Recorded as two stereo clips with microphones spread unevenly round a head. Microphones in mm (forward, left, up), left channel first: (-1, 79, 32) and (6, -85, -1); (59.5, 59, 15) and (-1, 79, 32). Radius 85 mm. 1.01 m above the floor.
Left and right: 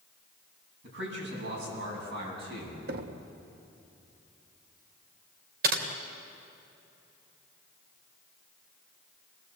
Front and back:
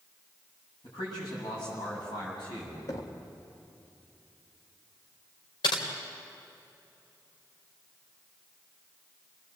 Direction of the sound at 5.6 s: 50° right.